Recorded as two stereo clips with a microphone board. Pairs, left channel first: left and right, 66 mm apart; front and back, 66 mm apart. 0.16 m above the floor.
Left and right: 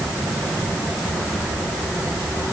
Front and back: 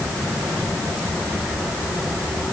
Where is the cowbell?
No cowbell in this recording.